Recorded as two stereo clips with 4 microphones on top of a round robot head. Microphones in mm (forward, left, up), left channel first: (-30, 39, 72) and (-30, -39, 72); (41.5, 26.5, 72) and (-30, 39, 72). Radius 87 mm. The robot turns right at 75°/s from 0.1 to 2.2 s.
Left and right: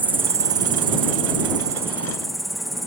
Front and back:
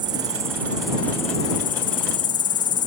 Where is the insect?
155° right; by 2.9 s straight ahead.